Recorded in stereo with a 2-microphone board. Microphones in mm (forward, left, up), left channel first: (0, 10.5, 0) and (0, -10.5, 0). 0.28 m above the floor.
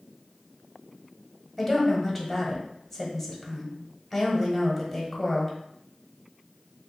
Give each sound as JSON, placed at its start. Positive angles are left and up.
{"t": 1.6, "sound": "a woman speaking", "side_deg": 0, "distance_m": 1.2}